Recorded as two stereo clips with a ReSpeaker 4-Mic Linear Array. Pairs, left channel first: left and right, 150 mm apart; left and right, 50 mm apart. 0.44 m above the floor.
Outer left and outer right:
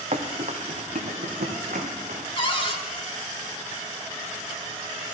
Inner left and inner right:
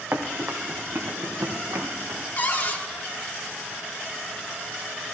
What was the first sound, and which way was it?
Running footsteps, 50° right (ahead or behind).